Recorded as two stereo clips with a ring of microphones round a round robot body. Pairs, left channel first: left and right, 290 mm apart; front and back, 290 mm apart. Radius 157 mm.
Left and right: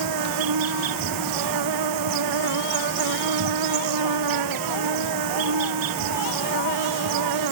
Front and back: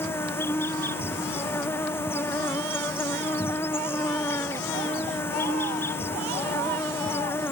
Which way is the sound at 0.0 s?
85° right.